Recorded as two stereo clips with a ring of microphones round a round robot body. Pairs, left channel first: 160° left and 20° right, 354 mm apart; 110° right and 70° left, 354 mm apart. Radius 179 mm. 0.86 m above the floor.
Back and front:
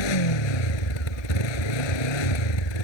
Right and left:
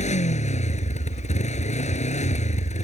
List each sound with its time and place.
0.0 s a motorcycle: 175° left